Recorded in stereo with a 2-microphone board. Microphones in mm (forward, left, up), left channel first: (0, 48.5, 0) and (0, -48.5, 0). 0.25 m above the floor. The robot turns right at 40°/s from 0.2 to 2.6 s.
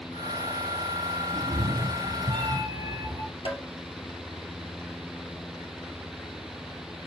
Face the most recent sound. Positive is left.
turn(degrees=80)